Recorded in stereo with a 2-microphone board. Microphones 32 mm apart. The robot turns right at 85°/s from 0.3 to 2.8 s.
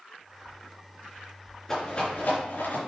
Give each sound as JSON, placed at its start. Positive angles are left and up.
{"t": 1.7, "sound": "a rattle", "side_deg": 10, "distance_m": 4.0}